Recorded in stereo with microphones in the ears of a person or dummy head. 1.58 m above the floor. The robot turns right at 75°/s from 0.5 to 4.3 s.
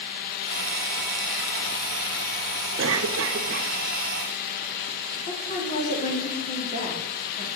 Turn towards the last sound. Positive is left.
turn(degrees=45)  # may be behind; listen again after turning